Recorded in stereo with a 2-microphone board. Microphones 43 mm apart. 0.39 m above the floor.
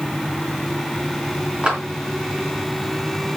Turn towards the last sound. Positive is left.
turn(degrees=-25)  # may be behind; listen again after turning